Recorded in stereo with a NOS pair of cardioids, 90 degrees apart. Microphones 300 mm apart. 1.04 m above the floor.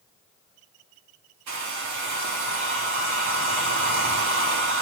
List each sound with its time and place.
1.5 s a hair dryer: 70° right, 2.5 m